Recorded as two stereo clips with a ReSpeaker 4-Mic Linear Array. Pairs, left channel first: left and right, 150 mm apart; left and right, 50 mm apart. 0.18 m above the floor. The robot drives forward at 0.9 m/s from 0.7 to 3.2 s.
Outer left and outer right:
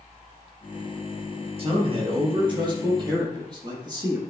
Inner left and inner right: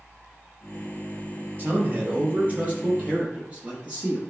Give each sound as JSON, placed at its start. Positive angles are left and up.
{"t": 1.6, "sound": "a man speaking", "side_deg": -40, "distance_m": 3.0}